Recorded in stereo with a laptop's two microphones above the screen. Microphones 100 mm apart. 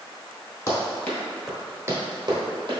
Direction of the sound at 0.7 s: 35° left (ahead or behind).